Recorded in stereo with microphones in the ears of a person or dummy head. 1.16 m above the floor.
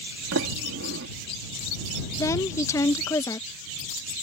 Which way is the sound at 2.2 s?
15° left (ahead or behind).